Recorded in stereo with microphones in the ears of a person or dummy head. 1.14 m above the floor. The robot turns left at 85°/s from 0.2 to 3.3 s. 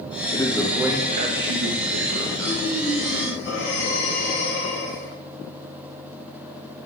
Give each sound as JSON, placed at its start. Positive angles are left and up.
{"t": 0.3, "sound": "a man speaking", "azimuth_deg": 30, "distance_m": 1.3}
{"t": 2.4, "sound": "breathing", "azimuth_deg": 165, "distance_m": 3.5}